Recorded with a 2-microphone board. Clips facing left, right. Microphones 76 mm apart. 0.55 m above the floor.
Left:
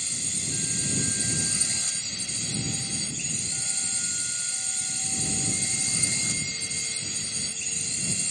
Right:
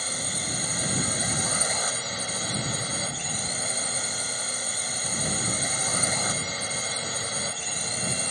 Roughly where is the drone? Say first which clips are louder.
Right 6 dB; right.